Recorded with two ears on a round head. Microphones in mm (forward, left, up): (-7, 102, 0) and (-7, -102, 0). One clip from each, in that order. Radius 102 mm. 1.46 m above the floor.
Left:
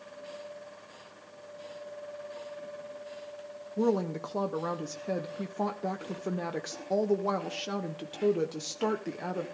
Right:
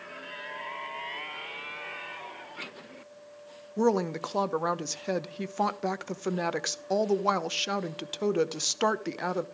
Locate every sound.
3.8 s a woman speaking: 45° right (ahead or behind), 0.9 m